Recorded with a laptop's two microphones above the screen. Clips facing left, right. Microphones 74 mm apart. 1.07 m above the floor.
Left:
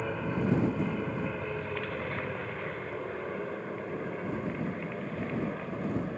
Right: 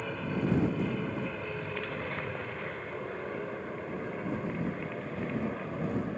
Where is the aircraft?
10° left (ahead or behind); by 6.2 s 5° right (ahead or behind).